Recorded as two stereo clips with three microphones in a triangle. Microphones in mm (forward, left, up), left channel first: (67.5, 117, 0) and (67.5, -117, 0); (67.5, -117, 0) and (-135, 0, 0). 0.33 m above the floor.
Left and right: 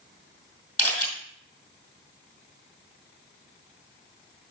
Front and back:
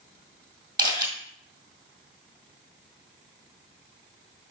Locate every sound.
0.8 s a camera shutter: 105° left, 2 m